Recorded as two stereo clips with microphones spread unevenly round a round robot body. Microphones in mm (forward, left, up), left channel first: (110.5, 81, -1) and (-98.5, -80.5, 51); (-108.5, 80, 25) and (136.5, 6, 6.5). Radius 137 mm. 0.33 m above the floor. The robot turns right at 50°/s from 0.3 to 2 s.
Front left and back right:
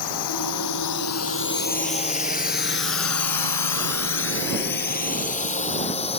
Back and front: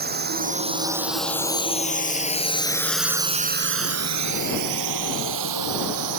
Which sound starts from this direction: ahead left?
A drone, at 0.0 s.